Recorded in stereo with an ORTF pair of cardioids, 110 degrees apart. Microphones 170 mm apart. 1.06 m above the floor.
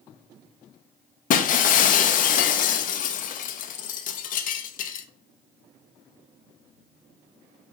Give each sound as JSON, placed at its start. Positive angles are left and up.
{"t": 1.3, "sound": "breaking glass", "azimuth_deg": 60, "distance_m": 0.6}